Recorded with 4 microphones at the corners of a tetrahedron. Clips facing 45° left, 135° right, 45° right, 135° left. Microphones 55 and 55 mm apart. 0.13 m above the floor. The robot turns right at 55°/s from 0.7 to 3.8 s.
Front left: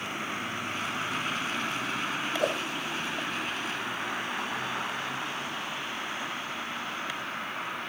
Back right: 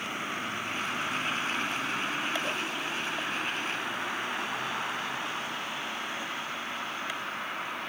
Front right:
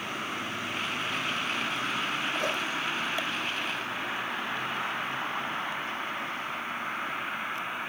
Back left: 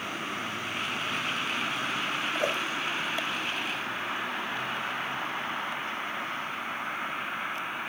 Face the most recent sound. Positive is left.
turn(degrees=135)